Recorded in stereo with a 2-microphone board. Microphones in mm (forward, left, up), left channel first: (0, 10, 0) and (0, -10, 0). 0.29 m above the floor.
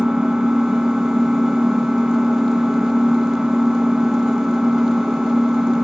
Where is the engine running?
40° right (ahead or behind), 1.0 m.